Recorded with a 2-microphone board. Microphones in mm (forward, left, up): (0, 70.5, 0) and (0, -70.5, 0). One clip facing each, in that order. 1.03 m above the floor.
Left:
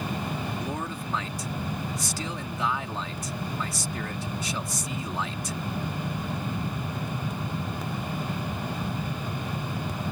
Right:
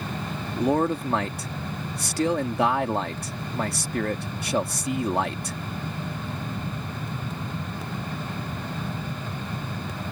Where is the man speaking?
60° right (ahead or behind).